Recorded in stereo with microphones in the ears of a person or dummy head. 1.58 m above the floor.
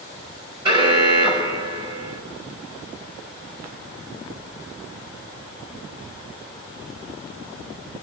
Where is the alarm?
30° right (ahead or behind), 5 m.